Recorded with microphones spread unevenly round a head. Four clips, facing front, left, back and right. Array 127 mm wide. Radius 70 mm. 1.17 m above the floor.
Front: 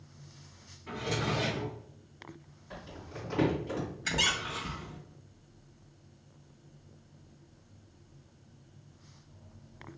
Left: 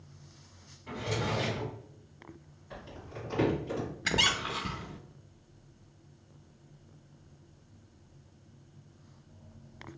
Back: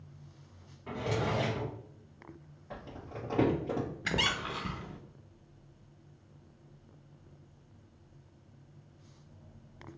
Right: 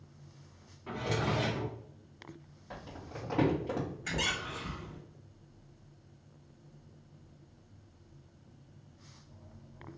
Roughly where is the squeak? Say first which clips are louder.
Left 5 dB, front 1 dB; left.